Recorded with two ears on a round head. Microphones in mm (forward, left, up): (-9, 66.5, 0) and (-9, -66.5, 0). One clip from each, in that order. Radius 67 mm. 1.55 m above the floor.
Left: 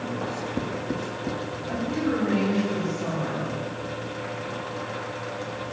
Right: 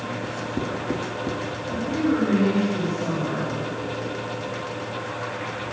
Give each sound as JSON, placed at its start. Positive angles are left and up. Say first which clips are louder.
{"t": 0.2, "sound": "writing", "louder": "right 1 dB", "side_deg": 10, "distance_m": 1.7}
{"t": 1.7, "sound": "a woman speaking", "louder": "right 3 dB", "side_deg": 55, "distance_m": 7.5}